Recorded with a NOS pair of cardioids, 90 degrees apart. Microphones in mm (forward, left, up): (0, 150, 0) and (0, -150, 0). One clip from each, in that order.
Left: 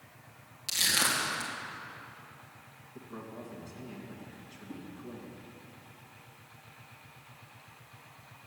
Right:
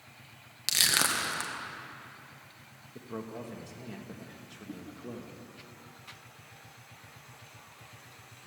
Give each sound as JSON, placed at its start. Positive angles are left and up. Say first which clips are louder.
{"t": 0.7, "sound": "crushing", "louder": "right 2 dB", "azimuth_deg": -55, "distance_m": 1.9}
{"t": 3.0, "sound": "a man speaking", "louder": "right 4 dB", "azimuth_deg": -45, "distance_m": 2.0}
{"t": 4.7, "sound": "a whoosh", "louder": "right 1 dB", "azimuth_deg": -50, "distance_m": 2.0}